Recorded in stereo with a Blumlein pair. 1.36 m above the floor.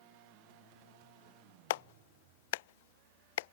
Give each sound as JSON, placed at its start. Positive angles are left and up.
{"t": 1.7, "sound": "a clap", "azimuth_deg": 55}